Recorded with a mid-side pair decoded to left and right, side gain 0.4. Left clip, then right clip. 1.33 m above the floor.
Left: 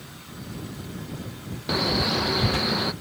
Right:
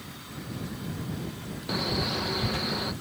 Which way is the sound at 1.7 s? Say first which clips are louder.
Left 6 dB; 45° left.